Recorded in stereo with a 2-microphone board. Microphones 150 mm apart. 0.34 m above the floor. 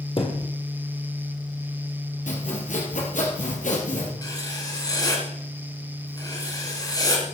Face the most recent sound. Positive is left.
turn(degrees=25)  # may be behind; listen again after turning